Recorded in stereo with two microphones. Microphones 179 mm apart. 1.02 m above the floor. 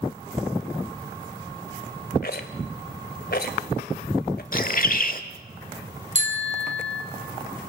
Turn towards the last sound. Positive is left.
turn(degrees=-40)  # may be behind; listen again after turning